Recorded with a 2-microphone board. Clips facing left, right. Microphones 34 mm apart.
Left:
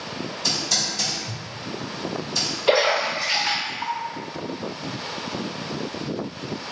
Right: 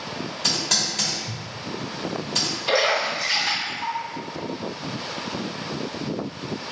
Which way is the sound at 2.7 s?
35° left (ahead or behind).